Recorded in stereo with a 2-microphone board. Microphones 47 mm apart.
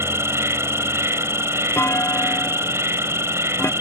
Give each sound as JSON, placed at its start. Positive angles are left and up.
{"t": 0.0, "sound": "an insect", "side_deg": -75}
{"t": 1.8, "sound": "a clunk", "side_deg": 70}